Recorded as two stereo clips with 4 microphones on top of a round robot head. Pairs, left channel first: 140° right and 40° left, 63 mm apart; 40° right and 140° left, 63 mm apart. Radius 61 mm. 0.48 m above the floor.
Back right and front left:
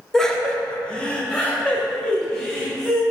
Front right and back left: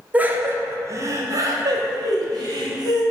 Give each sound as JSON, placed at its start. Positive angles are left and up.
{"t": 0.1, "sound": "laughter", "azimuth_deg": 155, "distance_m": 0.9}